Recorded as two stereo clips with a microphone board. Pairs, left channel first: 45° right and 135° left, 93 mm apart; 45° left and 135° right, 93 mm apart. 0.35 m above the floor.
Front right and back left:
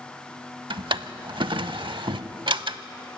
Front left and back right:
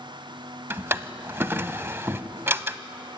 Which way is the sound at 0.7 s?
160° left.